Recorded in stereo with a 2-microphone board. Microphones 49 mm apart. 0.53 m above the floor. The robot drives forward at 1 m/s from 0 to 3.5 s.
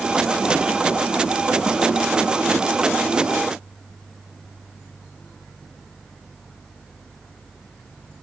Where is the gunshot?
No gunshot in this recording.